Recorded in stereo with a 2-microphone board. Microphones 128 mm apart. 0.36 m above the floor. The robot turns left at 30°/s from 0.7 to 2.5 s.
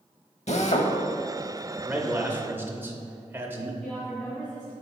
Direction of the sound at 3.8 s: 5° right (ahead or behind).